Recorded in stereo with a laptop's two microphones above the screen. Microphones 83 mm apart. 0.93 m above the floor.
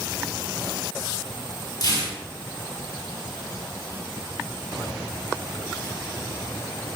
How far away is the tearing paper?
About 2 m.